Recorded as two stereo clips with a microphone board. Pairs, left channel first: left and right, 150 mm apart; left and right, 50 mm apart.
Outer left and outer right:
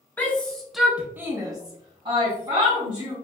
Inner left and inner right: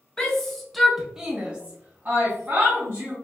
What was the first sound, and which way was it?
A shout, 10° left (ahead or behind).